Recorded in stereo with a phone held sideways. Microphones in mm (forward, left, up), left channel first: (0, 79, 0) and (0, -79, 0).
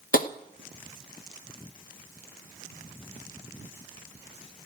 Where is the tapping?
65° left (ahead or behind), 0.8 m.